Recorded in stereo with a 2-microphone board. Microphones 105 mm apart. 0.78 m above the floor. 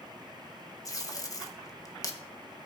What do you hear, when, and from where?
0.8 s tape being pulled: 30° left (ahead or behind), 1.0 m